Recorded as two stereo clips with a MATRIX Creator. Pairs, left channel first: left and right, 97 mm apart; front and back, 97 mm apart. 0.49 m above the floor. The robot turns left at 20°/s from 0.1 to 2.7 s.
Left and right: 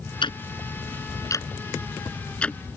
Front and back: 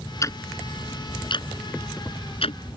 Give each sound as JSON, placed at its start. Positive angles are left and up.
{"t": 0.2, "sound": "ticking", "azimuth_deg": 55}